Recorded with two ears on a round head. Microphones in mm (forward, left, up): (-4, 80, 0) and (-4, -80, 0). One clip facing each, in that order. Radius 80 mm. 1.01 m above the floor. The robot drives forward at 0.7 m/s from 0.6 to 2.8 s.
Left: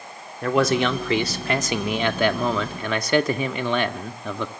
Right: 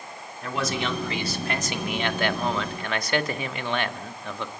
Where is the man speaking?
50° left (ahead or behind), 2.5 m; by 4.5 s 85° left, 1.9 m.